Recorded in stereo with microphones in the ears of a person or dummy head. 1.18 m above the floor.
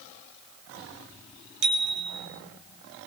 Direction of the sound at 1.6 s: 70° right (ahead or behind).